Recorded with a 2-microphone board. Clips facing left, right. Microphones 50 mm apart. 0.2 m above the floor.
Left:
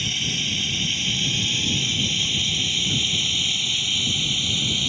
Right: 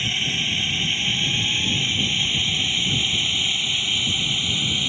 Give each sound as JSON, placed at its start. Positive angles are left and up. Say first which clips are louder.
{"t": 0.0, "sound": "a drone", "louder": "right 2 dB", "side_deg": -25}